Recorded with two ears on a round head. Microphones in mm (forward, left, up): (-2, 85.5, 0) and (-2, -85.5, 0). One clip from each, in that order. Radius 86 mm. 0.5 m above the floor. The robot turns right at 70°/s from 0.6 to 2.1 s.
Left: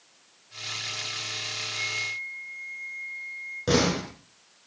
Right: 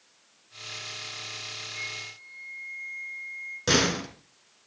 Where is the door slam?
55° right (ahead or behind), 5 m.